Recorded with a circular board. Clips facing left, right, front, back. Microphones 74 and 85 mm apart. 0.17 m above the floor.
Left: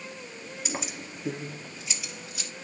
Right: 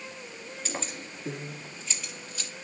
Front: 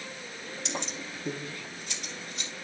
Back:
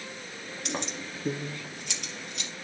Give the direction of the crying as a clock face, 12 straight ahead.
No crying in this recording.